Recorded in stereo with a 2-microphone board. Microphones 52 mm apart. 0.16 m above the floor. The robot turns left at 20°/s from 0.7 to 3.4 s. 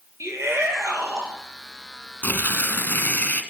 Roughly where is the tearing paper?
Left.